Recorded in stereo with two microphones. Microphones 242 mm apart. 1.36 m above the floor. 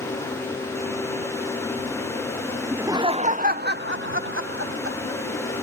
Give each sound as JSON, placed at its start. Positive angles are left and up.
{"t": 2.7, "sound": "laughter", "side_deg": -5}